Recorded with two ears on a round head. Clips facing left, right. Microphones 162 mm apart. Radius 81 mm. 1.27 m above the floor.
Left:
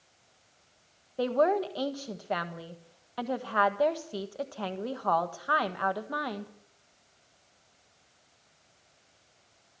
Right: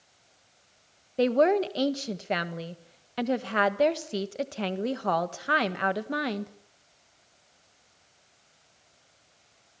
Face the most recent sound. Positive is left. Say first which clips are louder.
# right 4 dB
turn(degrees=-30)  # may be behind; listen again after turning